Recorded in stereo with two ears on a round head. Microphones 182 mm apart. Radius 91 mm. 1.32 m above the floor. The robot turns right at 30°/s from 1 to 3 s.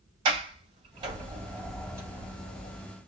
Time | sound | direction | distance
0.2 | a sliding door | 25° right (ahead or behind) | 3.5 m